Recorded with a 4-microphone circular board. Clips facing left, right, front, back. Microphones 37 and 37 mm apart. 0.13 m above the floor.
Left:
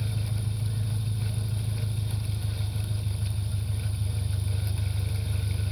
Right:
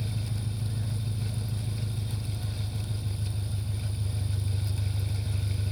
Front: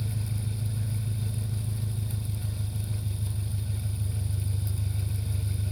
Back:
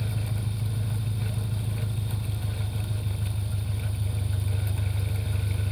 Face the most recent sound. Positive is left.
turn(degrees=-120)